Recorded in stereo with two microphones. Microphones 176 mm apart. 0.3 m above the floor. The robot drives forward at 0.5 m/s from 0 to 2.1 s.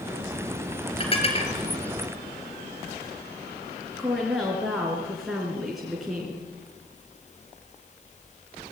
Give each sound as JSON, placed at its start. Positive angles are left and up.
{"t": 1.0, "sound": "dishes clattering", "side_deg": 30, "distance_m": 4.0}
{"t": 4.0, "sound": "a woman speaking", "side_deg": 0, "distance_m": 3.5}